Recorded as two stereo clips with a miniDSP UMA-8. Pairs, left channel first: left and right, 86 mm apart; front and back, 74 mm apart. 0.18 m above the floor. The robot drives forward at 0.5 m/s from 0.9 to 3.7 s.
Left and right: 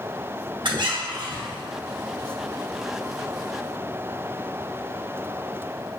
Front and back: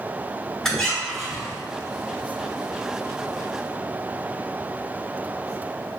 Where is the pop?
No pop in this recording.